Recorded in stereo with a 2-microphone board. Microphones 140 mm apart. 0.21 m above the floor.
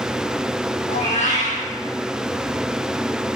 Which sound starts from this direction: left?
A cat meowing, at 0.9 s.